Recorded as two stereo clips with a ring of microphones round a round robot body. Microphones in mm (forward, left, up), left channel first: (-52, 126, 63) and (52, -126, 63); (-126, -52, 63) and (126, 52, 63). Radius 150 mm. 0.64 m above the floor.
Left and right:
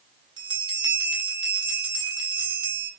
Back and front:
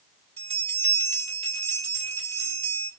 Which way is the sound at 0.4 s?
15° right.